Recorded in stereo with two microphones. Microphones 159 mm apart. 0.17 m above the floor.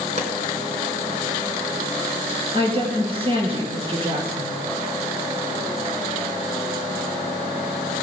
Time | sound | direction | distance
0.2 | a pop | 50° right (ahead or behind) | 2 m
2.5 | a woman speaking | 35° right (ahead or behind) | 4 m